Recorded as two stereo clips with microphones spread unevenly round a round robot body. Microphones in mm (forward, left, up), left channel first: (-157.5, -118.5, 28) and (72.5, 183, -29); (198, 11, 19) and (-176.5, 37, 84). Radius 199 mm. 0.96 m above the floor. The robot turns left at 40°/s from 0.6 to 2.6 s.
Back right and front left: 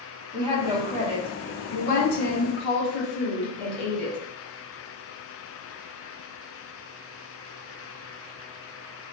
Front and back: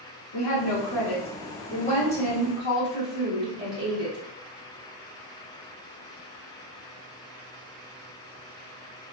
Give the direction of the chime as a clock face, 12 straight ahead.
No chime in this recording.